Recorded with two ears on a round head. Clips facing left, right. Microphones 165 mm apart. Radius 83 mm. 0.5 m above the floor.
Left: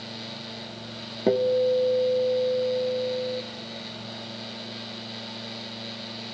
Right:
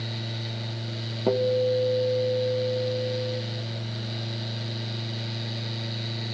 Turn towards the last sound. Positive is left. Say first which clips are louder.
# left 2 dB
turn(degrees=15)  # may be behind; listen again after turning